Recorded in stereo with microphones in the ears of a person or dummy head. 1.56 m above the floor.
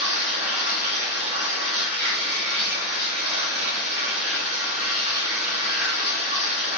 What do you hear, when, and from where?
0.0 s running water: 15° right (ahead or behind), 1.8 m